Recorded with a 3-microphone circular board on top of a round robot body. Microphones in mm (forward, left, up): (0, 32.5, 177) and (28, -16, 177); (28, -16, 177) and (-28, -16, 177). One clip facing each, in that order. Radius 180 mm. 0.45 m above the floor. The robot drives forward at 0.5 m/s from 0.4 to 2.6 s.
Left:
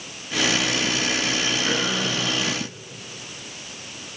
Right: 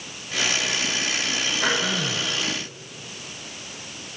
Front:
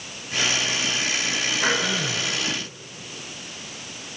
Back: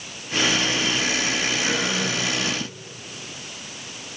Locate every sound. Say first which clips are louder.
1.6 s throat clearing: even, front 1 dB; 50° right, 5 m